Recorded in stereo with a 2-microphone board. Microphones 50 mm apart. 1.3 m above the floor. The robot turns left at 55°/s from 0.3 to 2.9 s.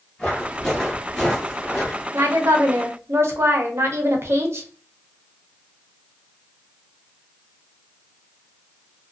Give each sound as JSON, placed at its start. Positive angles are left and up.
{"t": 0.2, "sound": "footsteps", "side_deg": 20, "distance_m": 1.3}
{"t": 2.1, "sound": "a woman speaking", "azimuth_deg": -75, "distance_m": 0.6}